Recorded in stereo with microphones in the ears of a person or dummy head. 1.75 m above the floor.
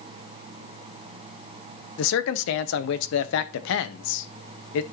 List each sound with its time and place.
2.0 s a man speaking: 75° left (ahead or behind), 1.0 m